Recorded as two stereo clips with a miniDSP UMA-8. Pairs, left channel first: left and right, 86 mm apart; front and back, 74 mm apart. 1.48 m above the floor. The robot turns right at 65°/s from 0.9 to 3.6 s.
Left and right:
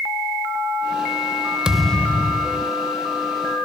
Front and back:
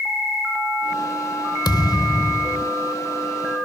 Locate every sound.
1.6 s a thud: 10° right; by 2.7 s 60° left